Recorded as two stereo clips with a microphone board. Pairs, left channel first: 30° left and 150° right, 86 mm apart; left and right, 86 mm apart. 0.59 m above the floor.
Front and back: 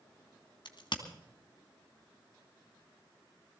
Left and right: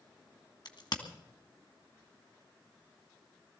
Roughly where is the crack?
Ahead left.